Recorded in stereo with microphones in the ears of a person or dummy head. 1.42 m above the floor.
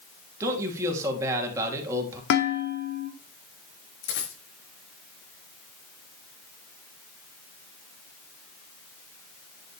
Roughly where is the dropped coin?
Left.